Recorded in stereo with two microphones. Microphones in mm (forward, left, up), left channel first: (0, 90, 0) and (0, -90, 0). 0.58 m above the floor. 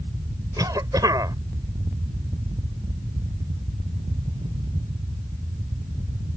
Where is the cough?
20° right (ahead or behind).